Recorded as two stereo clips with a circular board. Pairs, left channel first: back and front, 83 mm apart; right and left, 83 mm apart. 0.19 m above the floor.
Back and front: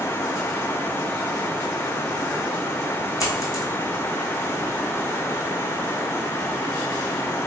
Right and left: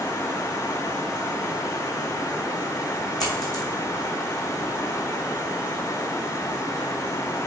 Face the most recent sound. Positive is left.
turn(degrees=-130)